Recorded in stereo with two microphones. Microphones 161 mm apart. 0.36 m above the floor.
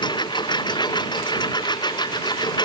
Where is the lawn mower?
25° left (ahead or behind).